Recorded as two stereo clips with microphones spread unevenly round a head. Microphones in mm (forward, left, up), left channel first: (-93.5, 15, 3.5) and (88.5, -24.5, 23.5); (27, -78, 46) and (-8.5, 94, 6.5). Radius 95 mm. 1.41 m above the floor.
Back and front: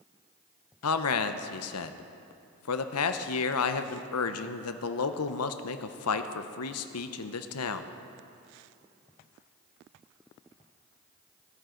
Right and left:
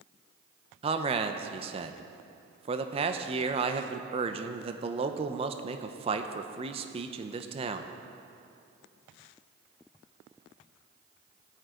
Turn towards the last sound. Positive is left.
turn(degrees=170)